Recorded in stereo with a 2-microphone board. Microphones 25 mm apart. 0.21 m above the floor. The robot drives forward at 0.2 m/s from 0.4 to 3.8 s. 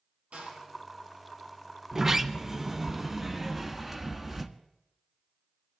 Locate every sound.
0.3 s a door slam: 60° right (ahead or behind), 5 m
1.9 s a sliding door: 20° right (ahead or behind), 0.8 m; by 4.5 s 15° right (ahead or behind), 1.1 m